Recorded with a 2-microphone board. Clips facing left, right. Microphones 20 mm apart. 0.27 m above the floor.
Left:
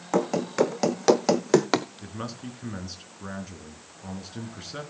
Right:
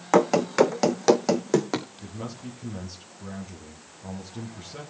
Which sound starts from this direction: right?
Running footsteps, at 0.1 s.